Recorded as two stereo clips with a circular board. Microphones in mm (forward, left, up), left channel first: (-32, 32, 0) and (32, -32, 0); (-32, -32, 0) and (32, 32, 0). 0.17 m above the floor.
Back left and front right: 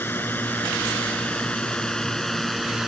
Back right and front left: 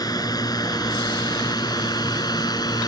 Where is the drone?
160° right; by 2.9 s 130° right.